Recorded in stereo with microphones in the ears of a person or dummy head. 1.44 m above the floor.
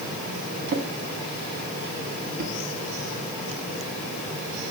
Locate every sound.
0.7 s a drawer: 55° right (ahead or behind), 1.4 m